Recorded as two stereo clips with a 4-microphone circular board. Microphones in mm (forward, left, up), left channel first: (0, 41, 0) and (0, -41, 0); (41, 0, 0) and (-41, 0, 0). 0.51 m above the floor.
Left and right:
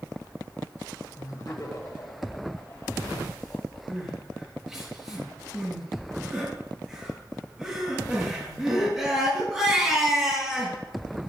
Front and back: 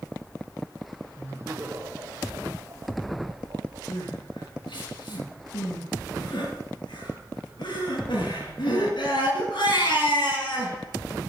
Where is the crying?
5° right, 6.5 m.